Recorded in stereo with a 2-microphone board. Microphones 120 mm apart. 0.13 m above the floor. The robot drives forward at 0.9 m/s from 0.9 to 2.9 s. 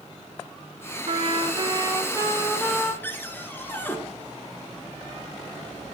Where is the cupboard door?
15° left (ahead or behind), 1.1 m.